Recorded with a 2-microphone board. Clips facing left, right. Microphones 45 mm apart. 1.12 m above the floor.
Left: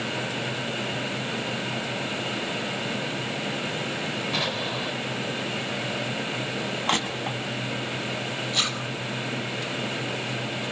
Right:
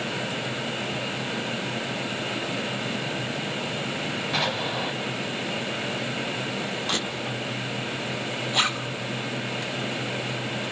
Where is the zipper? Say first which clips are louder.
Right 4 dB; 20° right (ahead or behind), 5 m.